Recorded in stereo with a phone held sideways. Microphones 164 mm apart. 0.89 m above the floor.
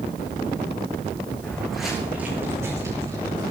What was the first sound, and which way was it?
Footsteps, 5° left (ahead or behind).